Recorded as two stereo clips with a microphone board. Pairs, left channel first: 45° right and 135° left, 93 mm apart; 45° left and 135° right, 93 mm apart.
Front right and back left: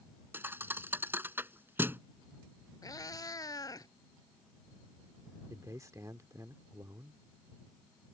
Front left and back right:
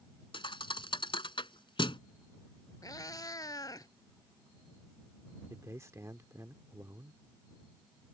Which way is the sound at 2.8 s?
Straight ahead.